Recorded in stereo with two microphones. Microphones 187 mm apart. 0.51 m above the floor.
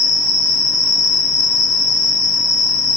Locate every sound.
0.0 s an insect: 80° left, 1.8 m